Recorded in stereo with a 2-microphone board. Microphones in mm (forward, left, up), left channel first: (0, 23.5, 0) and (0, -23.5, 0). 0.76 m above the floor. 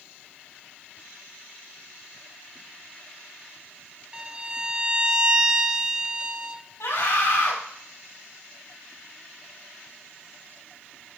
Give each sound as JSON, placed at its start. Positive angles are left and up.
{"t": 4.1, "sound": "a violin", "side_deg": -20, "distance_m": 0.6}
{"t": 6.8, "sound": "a scream", "side_deg": 80, "distance_m": 5.0}